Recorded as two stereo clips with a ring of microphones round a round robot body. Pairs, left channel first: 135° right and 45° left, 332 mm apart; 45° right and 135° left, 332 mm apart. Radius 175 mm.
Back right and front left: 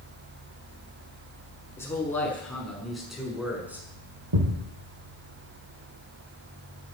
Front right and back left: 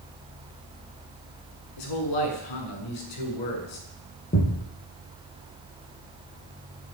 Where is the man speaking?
50° right, 7 m; by 3.9 s 40° right, 7 m.